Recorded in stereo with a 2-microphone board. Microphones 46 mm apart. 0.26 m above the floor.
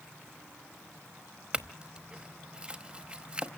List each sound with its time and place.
1.5 s a clink: 20° right (ahead or behind), 1.0 m